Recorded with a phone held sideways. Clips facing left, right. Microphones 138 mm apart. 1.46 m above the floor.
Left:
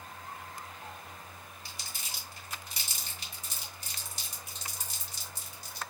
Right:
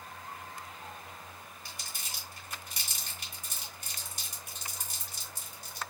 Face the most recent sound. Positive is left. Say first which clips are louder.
# even
turn(degrees=-55)  # may be behind; listen again after turning